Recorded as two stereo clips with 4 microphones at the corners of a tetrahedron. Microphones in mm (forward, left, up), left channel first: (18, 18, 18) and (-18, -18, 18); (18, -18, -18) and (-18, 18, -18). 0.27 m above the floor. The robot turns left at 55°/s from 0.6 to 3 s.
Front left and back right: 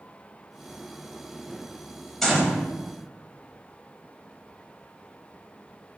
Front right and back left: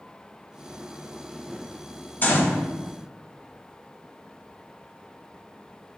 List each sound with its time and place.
2.2 s a gunshot: 35° right, 1.1 m; by 2.6 s 60° right, 1.1 m